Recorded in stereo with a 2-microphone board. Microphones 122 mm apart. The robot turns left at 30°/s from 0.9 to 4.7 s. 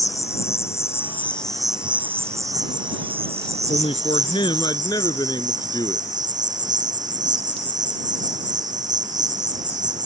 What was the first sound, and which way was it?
An insect, 20° left.